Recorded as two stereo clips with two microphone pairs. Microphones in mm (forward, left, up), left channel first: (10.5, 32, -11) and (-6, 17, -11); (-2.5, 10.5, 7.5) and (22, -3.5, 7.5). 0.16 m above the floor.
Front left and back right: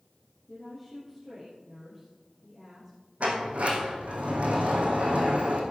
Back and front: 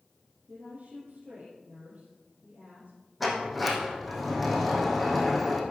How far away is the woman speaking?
About 4.5 m.